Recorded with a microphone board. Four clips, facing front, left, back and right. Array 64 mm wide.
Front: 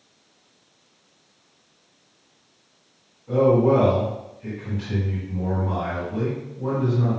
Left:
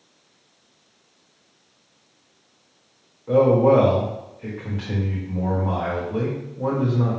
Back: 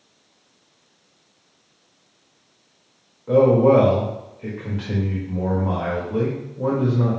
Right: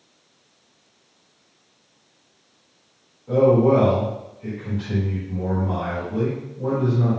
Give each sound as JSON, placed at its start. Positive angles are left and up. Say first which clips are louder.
{"t": 3.3, "sound": "a man speaking", "louder": "even, back 3 dB", "azimuth_deg": 150, "distance_m": 2.0}